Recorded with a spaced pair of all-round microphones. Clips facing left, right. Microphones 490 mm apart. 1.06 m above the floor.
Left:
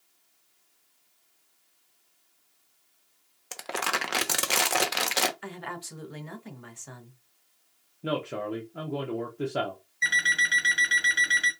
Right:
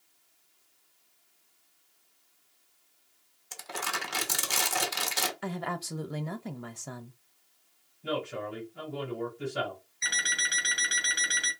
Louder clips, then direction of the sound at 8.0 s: Left 3 dB; 65° left (ahead or behind).